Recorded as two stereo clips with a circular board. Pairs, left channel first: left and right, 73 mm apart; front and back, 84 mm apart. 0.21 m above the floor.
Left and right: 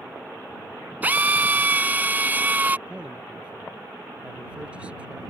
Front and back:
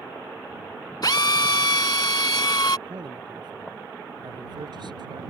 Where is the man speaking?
165° right.